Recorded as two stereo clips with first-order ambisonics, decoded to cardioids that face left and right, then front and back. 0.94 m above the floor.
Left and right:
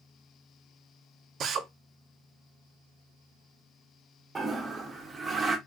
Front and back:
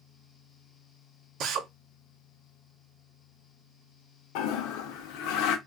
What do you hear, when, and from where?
1.4 s a drill: 140° right, 0.6 m
4.3 s a toilet flushing: 15° right, 0.6 m